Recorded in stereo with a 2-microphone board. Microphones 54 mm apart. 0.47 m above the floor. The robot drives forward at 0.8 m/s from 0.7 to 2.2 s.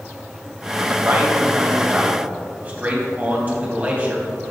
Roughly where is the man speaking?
Right.